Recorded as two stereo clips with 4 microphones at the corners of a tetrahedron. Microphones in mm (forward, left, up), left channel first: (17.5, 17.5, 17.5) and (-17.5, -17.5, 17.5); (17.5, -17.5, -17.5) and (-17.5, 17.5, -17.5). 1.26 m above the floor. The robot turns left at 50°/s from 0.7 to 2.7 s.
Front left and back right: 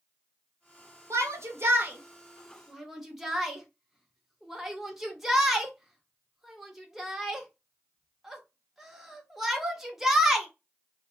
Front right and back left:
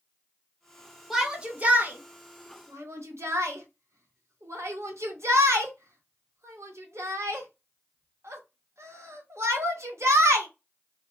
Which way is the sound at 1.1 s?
140° right.